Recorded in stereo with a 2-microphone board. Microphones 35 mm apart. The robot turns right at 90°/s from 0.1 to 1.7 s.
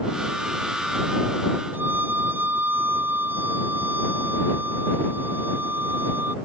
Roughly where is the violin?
Right.